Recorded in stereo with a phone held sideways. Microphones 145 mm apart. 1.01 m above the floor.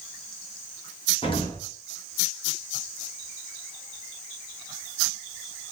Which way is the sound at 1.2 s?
40° left (ahead or behind).